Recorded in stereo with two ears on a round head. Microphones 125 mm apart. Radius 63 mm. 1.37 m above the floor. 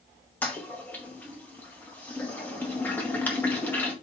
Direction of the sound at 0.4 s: 10° left (ahead or behind).